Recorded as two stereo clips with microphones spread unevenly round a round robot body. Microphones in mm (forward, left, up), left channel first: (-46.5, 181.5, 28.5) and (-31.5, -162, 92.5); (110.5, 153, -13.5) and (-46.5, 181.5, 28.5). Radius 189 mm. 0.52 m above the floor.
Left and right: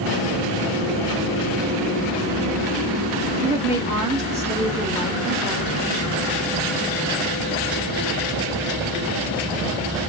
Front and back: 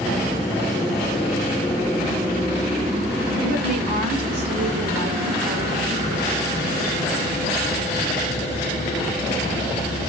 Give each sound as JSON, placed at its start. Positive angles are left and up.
{"t": 3.4, "sound": "a woman speaking", "azimuth_deg": -175, "distance_m": 1.1}